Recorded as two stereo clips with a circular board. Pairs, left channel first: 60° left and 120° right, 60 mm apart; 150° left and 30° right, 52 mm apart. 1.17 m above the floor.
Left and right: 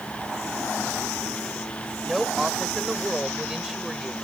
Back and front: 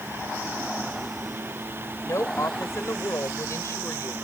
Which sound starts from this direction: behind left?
A woman speaking, at 2.0 s.